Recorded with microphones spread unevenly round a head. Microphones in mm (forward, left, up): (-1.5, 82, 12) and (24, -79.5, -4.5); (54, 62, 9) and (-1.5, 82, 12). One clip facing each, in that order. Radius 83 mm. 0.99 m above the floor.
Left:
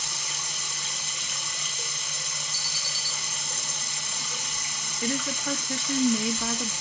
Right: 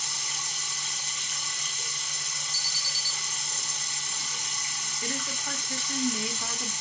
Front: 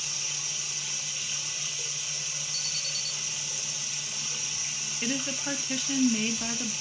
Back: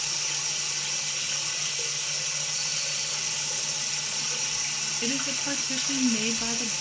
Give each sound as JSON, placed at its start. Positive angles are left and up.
{"t": 0.0, "sound": "running water", "azimuth_deg": 135, "distance_m": 1.2}
{"t": 2.5, "sound": "an alarm", "azimuth_deg": -35, "distance_m": 0.9}
{"t": 5.0, "sound": "a woman speaking", "azimuth_deg": 65, "distance_m": 1.5}